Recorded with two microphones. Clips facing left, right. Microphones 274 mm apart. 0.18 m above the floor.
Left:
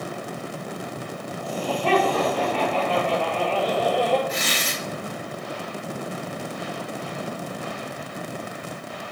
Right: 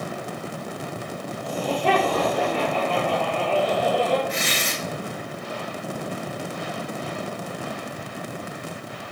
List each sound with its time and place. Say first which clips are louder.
1.4 s laughter: right 1 dB; 20° right (ahead or behind), 4 m; by 4.2 s 5° right (ahead or behind), 2.5 m
4.3 s tearing paper: even; 50° left (ahead or behind), 3 m